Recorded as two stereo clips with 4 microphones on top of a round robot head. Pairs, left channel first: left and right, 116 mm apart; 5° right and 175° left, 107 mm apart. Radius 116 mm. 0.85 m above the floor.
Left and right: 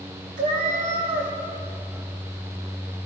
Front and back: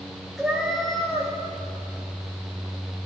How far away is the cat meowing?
About 1.2 m.